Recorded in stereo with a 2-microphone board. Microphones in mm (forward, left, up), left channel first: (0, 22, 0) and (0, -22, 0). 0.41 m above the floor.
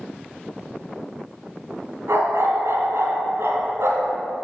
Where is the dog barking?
80° right, 1.9 m.